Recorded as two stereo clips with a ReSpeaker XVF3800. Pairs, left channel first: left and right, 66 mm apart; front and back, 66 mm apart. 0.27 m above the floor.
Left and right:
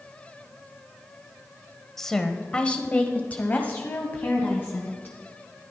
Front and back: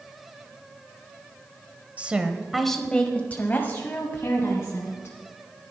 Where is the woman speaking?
165° left, 1.0 m; by 5.2 s 30° left, 2 m.